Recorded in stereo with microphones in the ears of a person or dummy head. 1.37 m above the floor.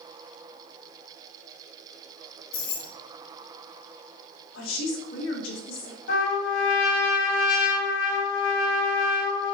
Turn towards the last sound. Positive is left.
turn(degrees=70)  # may be behind; listen again after turning